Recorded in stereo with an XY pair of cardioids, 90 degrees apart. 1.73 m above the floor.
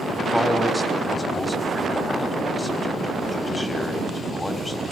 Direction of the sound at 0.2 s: 10° left.